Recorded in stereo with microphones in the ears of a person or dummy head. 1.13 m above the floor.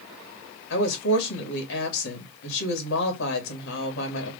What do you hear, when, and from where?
0.7 s a woman speaking: 70° left (ahead or behind), 2.0 m